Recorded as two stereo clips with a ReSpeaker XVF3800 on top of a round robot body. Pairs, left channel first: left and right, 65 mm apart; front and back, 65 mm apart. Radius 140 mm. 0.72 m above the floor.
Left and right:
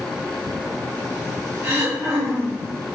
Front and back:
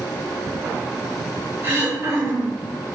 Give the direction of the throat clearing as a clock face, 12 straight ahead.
4 o'clock.